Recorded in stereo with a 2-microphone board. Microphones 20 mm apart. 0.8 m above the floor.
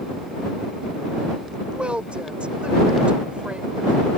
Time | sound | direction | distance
1.7 | a woman speaking | 75° right (ahead or behind) | ?